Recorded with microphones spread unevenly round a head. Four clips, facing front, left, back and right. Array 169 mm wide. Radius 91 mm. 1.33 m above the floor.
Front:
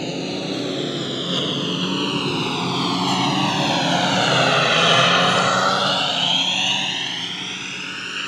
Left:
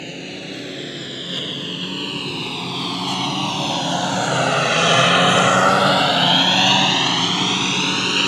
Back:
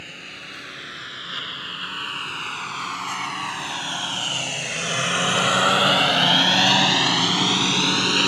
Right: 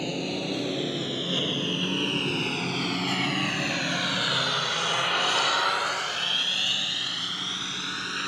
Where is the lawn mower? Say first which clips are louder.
Right 2 dB, front 16 dB; 10° right; by 8.3 s 135° left.